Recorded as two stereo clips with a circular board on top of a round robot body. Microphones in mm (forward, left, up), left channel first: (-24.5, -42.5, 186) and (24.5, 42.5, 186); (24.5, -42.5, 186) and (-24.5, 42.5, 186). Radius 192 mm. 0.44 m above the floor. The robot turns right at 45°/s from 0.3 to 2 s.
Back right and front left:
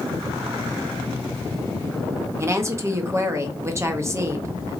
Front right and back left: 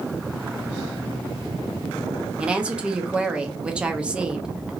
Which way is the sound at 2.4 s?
55° left.